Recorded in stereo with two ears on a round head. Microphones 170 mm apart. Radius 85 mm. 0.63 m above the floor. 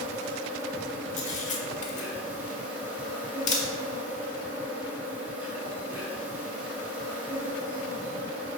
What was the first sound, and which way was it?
An insect, 10° right (ahead or behind).